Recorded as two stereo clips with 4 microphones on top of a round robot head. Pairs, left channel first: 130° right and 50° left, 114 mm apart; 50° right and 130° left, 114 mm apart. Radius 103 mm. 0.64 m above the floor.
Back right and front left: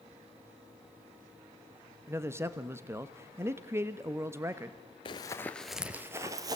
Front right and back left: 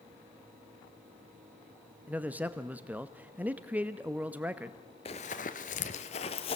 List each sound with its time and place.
2.1 s a man speaking: 75° left, 1.1 m
5.0 s running footsteps: 90° right, 0.8 m; by 6.6 s 10° right, 1.3 m